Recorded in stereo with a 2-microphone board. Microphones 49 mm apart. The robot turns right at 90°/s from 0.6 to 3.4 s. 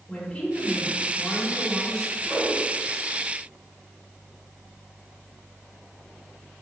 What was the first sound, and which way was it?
A woman speaking, 65° left.